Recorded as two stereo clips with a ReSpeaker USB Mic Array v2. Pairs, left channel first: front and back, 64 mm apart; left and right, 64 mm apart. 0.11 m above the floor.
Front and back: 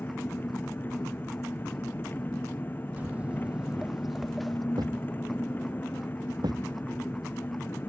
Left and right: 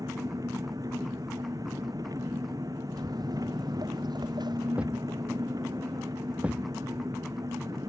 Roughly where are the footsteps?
Behind right.